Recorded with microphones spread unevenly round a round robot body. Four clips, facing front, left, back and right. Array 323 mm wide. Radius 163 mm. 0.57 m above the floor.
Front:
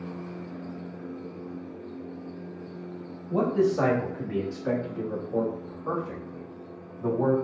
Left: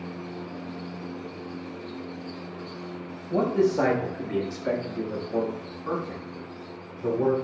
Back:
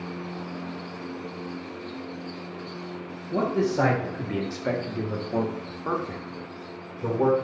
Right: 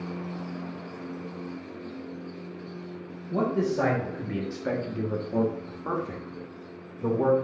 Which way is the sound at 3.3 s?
100° left.